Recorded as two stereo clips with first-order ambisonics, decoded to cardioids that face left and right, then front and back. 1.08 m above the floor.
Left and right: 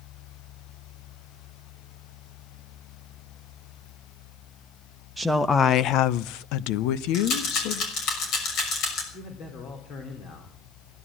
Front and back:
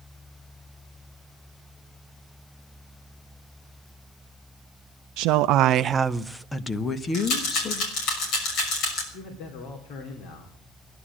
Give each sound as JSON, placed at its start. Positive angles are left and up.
{"t": 5.2, "sound": "a woman speaking", "azimuth_deg": -175, "distance_m": 0.6}
{"t": 7.1, "sound": "a rattle", "azimuth_deg": 45, "distance_m": 6.0}
{"t": 9.1, "sound": "a man speaking", "azimuth_deg": 40, "distance_m": 3.0}